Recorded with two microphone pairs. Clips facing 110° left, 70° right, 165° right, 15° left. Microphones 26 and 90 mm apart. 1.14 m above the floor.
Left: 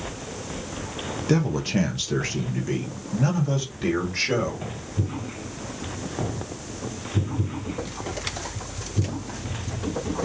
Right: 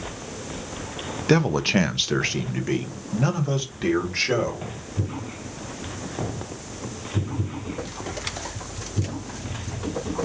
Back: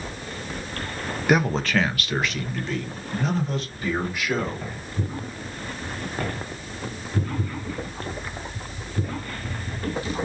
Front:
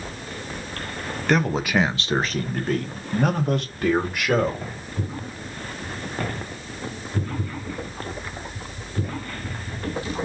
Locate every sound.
1.3 s a man speaking: 90° right, 0.6 m; by 4.7 s straight ahead, 2 m